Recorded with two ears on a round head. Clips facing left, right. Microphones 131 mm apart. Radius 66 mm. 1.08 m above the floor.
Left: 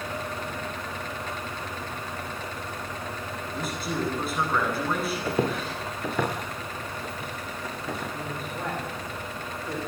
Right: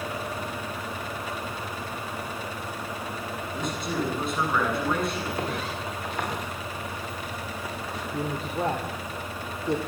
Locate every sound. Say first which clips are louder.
3.5 s a man speaking: right 1 dB; 5° left (ahead or behind), 9.5 m
5.2 s footsteps: left 4 dB; 80° left, 7 m; by 8.0 s 85° left, 10 m
8.1 s a woman speaking: right 4 dB; 25° right (ahead or behind), 3.5 m